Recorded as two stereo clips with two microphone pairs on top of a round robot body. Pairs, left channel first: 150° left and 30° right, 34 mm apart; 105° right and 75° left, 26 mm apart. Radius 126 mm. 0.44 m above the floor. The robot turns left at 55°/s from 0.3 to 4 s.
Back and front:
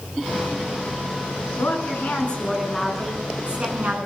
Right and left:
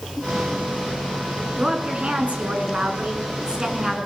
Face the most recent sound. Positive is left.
turn(degrees=-5)